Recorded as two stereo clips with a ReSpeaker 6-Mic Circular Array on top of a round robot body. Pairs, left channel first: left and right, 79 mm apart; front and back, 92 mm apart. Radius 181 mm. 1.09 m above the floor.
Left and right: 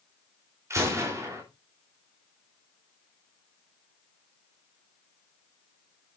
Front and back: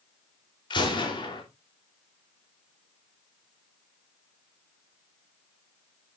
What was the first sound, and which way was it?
A gunshot, 35° right.